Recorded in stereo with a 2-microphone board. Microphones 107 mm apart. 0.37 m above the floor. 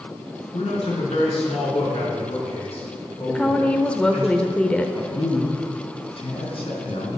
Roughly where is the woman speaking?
Centre.